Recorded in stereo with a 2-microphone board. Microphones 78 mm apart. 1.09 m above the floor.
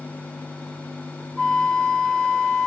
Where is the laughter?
I don't hear laughter.